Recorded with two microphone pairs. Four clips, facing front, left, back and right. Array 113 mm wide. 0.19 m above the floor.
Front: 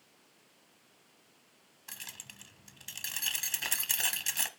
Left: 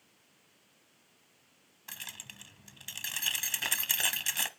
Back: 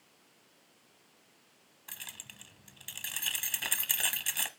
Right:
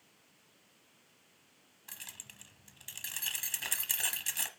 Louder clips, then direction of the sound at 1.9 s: Left 6 dB, even; 90° left.